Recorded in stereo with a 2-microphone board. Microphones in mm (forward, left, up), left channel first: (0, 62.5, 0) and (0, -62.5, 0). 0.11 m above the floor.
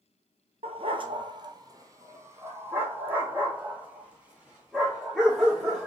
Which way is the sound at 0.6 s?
55° right (ahead or behind).